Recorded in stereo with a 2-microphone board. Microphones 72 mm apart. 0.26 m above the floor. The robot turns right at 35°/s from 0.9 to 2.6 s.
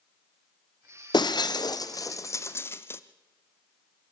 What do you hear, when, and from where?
1.1 s breaking glass: 75° left (ahead or behind), 0.7 m; by 3.0 s 35° left (ahead or behind), 0.7 m